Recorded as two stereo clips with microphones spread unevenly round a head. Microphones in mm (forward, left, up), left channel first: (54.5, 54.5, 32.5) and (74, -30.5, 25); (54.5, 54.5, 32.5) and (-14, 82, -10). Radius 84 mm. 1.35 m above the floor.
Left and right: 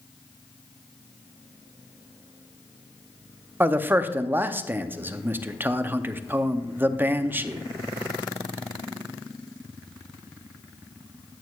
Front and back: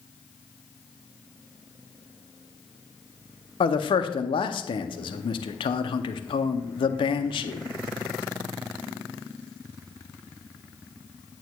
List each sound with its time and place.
3.6 s a man speaking: 10° right, 0.6 m